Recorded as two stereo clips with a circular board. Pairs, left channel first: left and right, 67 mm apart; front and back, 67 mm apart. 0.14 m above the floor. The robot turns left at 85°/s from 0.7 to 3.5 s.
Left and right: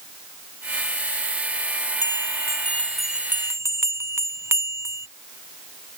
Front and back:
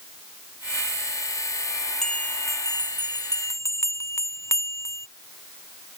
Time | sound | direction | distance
2.0 | a bell | 85° left | ?